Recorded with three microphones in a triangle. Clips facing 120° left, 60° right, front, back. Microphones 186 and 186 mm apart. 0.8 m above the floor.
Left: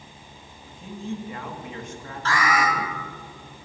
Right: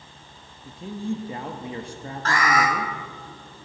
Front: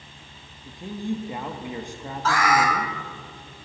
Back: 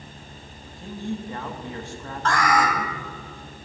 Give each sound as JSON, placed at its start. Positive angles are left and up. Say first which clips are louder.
{"t": 0.7, "sound": "a man speaking", "louder": "right 4 dB, front 2 dB", "azimuth_deg": -60, "distance_m": 1.0}
{"t": 2.2, "sound": "an alarm", "louder": "right 1 dB, even", "azimuth_deg": -85, "distance_m": 3.5}